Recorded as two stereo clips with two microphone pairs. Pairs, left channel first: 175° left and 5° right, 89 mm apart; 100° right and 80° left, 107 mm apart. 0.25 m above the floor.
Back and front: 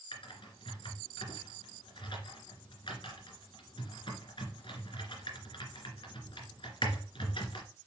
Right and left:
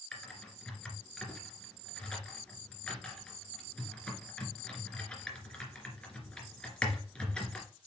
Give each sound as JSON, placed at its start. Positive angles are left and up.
{"t": 0.1, "sound": "typing on a keyboard", "azimuth_deg": 180, "distance_m": 2.5}